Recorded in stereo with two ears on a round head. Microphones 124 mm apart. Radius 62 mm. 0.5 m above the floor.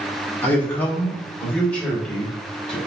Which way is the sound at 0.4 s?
15° left (ahead or behind).